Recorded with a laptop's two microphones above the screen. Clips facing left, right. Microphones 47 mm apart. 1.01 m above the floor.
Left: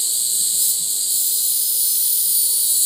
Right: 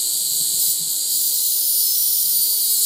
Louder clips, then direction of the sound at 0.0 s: Even; 20° left (ahead or behind).